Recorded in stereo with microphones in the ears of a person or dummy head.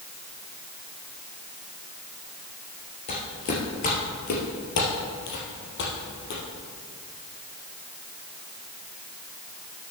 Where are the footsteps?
30° left (ahead or behind), 2 m; by 6.4 s 60° left (ahead or behind), 3.5 m.